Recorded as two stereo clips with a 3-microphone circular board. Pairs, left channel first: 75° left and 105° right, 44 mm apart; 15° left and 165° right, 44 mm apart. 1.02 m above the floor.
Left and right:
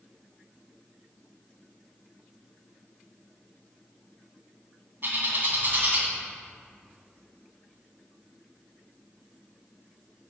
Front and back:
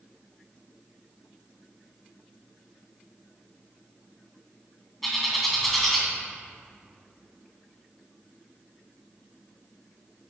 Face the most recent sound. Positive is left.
turn(degrees=-70)